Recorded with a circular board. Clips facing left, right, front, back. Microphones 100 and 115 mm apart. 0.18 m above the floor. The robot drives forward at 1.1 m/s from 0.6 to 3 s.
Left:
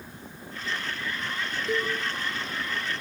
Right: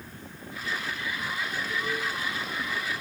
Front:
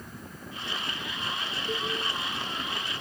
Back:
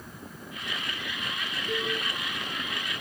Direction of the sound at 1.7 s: 75° left.